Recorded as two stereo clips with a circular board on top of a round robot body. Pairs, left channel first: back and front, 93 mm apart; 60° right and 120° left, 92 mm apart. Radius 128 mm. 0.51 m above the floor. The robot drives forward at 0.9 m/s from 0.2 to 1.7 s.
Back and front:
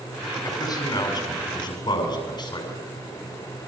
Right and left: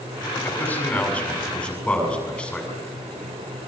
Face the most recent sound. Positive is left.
turn(degrees=-140)